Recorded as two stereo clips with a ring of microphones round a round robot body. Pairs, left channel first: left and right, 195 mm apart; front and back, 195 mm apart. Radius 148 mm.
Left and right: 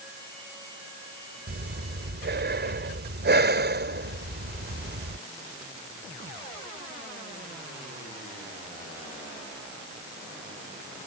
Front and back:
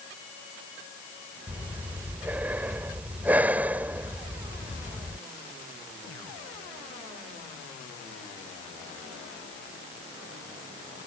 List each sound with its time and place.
1.5 s breathing: 100° right